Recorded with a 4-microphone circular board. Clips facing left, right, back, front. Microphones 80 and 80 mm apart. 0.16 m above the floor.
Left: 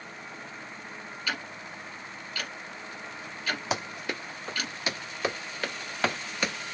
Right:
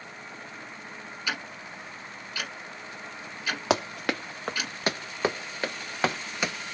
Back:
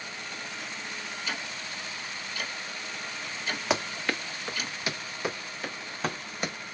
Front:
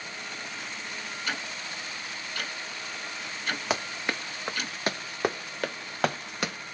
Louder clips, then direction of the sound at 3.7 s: Right 6 dB, back 3 dB; 90° right.